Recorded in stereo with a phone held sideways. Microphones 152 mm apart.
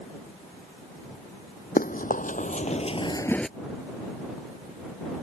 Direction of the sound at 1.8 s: 70° left (ahead or behind).